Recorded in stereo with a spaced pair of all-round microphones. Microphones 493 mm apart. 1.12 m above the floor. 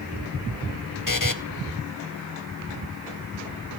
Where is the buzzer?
40° left (ahead or behind), 0.8 m.